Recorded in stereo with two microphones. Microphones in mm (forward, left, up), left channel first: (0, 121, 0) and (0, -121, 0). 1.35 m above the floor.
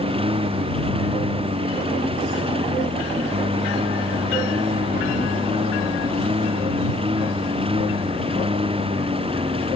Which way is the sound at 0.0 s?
20° right (ahead or behind).